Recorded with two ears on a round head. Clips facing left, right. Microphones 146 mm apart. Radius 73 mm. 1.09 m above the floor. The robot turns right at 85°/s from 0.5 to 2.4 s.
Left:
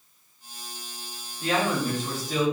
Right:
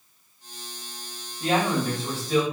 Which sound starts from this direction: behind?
A man speaking, at 1.4 s.